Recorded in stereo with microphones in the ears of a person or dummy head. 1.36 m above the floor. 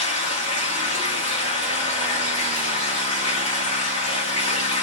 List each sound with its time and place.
0.0 s running water: 40° left (ahead or behind), 1.4 m